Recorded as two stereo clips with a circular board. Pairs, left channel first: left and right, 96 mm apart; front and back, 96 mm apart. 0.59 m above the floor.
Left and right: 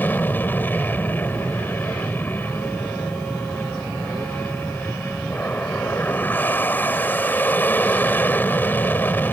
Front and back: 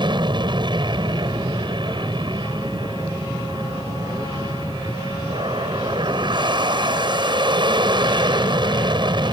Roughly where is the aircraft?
Behind.